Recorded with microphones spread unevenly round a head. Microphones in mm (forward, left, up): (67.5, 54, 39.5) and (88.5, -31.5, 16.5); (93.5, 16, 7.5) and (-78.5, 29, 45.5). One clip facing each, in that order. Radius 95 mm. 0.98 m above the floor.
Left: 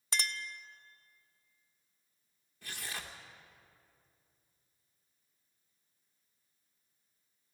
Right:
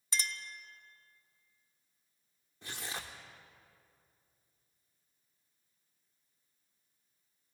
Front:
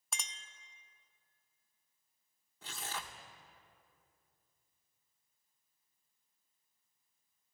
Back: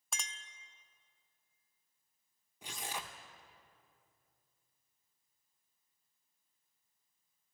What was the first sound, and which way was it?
A clink, 90° left.